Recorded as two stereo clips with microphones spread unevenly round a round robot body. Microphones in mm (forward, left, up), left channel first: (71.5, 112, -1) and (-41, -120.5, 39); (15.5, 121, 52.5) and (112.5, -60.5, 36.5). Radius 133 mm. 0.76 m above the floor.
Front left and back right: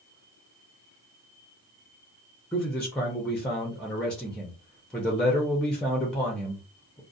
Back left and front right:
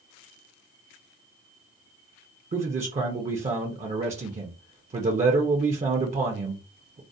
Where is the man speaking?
15° right, 0.6 m.